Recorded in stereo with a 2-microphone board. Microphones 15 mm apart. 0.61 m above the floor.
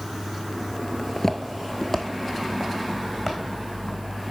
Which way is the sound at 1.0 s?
15° left (ahead or behind).